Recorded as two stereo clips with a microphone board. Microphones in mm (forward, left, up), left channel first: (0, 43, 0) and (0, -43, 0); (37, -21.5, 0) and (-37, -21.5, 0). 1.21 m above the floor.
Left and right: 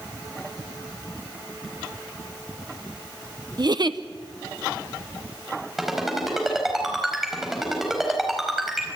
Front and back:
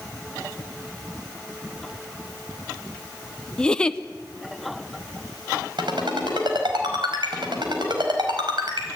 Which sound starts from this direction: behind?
A ringtone, at 5.8 s.